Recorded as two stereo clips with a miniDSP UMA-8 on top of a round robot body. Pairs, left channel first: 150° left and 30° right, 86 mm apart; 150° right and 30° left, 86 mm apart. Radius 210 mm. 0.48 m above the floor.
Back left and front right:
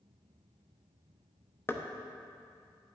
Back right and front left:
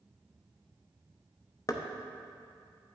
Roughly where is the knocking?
Behind.